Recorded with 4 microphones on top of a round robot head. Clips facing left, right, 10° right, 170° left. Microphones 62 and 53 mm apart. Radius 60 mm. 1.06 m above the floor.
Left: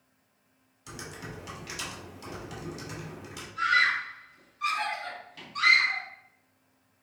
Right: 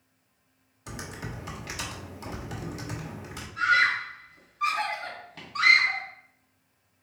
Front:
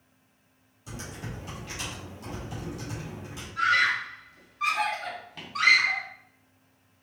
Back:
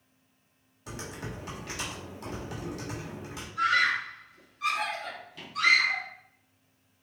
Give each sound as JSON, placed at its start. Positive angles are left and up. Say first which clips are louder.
{"t": 0.9, "sound": "typing on a keyboard", "louder": "right 3 dB, back 1 dB", "azimuth_deg": -140, "distance_m": 1.3}
{"t": 3.6, "sound": "a scream", "louder": "right 2 dB, front 2 dB", "azimuth_deg": -45, "distance_m": 1.8}